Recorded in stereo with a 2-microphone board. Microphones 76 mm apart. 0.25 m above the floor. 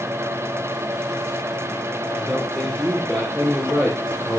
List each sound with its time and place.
2.1 s a man speaking: 5° right (ahead or behind), 4.5 m